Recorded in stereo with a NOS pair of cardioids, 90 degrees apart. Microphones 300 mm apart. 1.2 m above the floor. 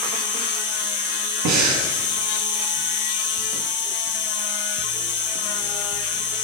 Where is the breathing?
65° right, 1.4 m.